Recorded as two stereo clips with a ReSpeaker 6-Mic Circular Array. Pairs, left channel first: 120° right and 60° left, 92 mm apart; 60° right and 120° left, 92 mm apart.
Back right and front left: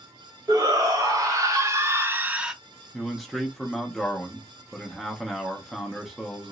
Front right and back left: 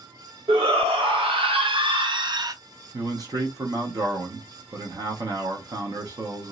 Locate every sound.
0.5 s a shout: 110° left, 1.4 m; by 2.5 s 145° left, 0.5 m
2.9 s a man speaking: 150° left, 0.8 m